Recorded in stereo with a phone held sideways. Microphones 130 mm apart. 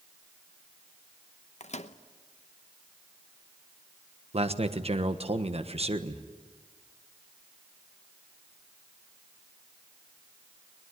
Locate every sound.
1.6 s a microwave: 65° left (ahead or behind), 0.9 m
4.3 s a man speaking: 55° right (ahead or behind), 1.3 m